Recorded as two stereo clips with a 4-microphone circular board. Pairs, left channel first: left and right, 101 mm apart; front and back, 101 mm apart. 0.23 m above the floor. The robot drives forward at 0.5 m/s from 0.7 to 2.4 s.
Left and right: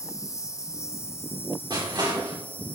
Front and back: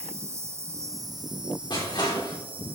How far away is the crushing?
About 3.5 m.